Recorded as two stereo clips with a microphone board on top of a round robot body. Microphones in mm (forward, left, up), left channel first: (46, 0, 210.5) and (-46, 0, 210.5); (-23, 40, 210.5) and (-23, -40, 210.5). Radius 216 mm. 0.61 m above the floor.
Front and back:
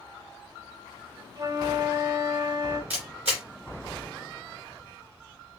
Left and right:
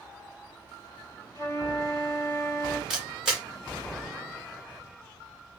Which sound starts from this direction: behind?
A camera shutter, at 2.9 s.